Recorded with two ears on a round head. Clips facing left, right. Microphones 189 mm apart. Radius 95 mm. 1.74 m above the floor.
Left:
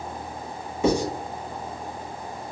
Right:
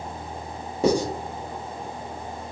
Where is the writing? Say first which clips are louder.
Right 1 dB; 35° right (ahead or behind), 1.1 m.